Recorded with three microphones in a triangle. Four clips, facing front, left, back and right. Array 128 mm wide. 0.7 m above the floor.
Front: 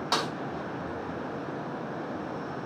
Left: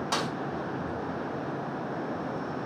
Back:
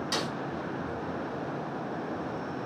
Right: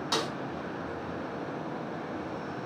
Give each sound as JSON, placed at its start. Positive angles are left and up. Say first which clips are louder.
{"t": 0.1, "sound": "a snare drum", "louder": "even, front 5 dB", "azimuth_deg": 20, "distance_m": 4.5}